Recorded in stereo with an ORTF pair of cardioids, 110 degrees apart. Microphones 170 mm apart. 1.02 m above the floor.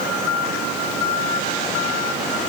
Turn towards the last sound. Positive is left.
No sound to turn to.